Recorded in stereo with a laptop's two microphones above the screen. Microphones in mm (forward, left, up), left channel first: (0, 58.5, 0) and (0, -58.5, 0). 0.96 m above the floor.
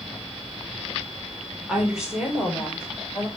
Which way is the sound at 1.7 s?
5° right (ahead or behind).